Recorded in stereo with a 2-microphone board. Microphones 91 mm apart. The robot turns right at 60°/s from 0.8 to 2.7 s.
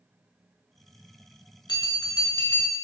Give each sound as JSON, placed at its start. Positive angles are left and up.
{"t": 1.7, "sound": "a bell", "azimuth_deg": 100, "distance_m": 0.6}